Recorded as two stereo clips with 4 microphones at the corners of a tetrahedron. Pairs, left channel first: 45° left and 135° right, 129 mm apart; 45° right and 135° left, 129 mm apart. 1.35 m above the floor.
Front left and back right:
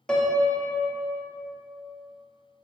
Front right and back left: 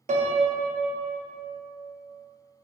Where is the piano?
130° left, 0.5 m.